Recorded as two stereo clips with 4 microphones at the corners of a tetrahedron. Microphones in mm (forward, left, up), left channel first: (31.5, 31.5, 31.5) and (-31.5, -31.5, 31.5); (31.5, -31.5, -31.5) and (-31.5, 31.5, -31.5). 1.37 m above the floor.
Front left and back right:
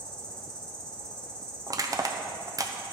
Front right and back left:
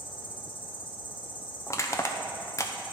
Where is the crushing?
95° right, 0.7 m.